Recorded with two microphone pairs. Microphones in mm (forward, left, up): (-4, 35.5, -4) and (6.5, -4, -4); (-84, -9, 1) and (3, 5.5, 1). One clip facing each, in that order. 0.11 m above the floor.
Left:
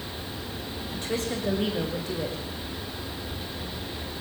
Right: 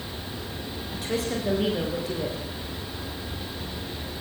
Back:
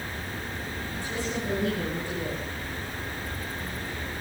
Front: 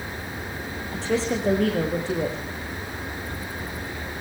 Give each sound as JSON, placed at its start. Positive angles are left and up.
{"t": 0.9, "sound": "a woman speaking", "azimuth_deg": 15, "distance_m": 8.5}